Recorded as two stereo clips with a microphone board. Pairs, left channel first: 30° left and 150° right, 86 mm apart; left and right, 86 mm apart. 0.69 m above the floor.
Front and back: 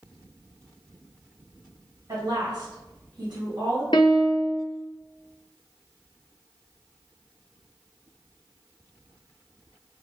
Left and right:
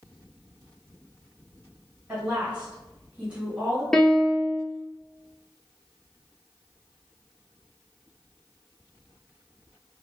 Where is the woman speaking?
160° right, 1.3 m.